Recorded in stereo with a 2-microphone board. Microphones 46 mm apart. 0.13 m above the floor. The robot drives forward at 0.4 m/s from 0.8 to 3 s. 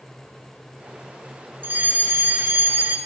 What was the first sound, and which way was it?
A fire alarm, 40° right (ahead or behind).